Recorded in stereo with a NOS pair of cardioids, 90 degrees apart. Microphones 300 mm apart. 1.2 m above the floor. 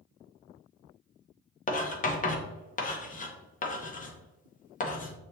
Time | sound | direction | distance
1.7 | writing | 30° left | 1.0 m